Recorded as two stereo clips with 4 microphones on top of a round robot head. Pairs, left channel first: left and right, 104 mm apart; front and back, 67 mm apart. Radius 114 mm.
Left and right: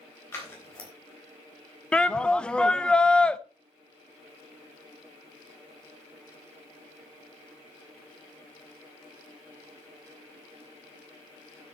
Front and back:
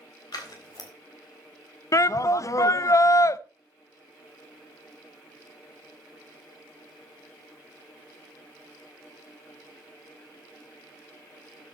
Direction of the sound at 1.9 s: 10° left.